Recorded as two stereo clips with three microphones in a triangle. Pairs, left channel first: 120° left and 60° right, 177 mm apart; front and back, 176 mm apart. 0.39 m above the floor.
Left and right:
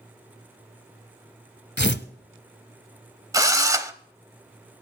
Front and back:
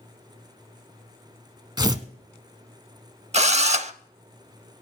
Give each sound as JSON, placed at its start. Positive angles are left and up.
{"t": 1.8, "sound": "tearing paper", "azimuth_deg": 115, "distance_m": 0.8}
{"t": 3.3, "sound": "a drill", "azimuth_deg": -130, "distance_m": 0.7}